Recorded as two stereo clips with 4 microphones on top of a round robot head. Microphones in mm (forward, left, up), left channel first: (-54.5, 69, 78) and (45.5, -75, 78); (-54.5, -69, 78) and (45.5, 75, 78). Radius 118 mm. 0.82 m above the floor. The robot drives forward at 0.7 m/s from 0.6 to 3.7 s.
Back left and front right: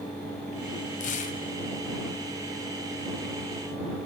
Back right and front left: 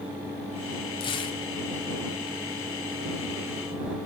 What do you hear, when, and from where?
1.0 s tearing paper: 170° left, 1.1 m; by 1.4 s 175° left, 1.4 m